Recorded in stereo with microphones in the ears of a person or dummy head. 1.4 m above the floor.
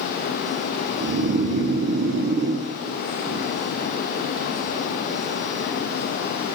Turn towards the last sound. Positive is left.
turn(degrees=-55)  # may be behind; listen again after turning